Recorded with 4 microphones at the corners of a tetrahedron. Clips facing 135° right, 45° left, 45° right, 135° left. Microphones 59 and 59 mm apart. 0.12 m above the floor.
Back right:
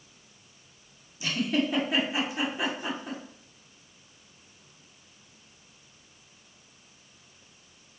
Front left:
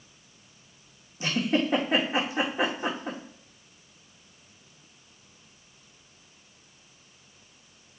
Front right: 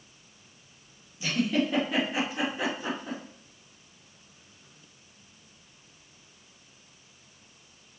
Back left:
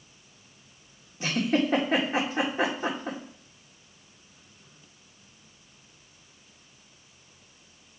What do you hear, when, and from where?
1.2 s a giggle: 90° left, 2 m